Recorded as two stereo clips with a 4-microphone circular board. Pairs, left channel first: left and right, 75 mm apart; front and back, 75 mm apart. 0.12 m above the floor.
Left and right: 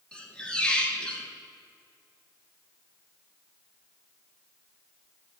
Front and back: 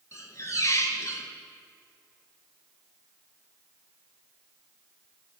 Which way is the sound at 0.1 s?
20° left.